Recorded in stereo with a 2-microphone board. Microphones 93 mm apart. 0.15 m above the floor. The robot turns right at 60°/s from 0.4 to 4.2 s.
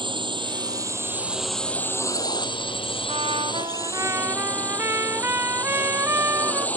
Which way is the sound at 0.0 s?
65° right.